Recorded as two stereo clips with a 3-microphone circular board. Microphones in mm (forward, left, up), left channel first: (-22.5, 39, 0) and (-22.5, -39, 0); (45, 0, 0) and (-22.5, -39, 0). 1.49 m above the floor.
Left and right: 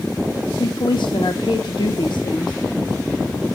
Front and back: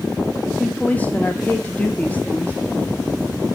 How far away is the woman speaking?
About 1.2 m.